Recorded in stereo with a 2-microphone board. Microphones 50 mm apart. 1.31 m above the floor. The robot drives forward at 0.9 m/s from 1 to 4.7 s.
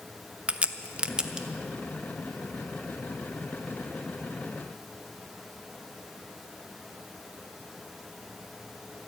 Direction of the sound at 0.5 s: 25° right (ahead or behind).